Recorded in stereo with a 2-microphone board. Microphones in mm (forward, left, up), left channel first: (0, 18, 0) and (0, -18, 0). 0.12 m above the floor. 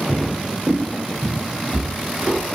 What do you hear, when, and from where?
0.1 s footsteps: 5° left (ahead or behind), 1.1 m; by 2.4 s 40° right (ahead or behind), 2 m